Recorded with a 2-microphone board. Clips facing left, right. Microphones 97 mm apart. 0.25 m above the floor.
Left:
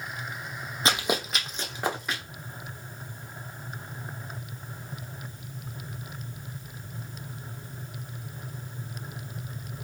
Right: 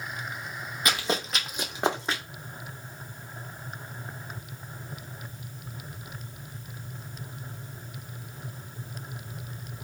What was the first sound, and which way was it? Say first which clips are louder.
Running footsteps: left 2 dB; 30° left (ahead or behind).